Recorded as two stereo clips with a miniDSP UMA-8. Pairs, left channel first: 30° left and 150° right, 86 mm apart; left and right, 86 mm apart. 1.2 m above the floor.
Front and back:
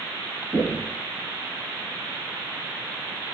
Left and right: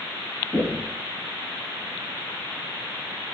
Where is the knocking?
165° left, 6 m.